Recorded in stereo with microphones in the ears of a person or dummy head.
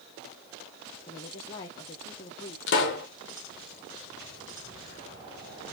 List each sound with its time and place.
1.1 s a woman speaking: 20° left (ahead or behind), 0.5 m
2.7 s a pop: 50° left (ahead or behind), 0.7 m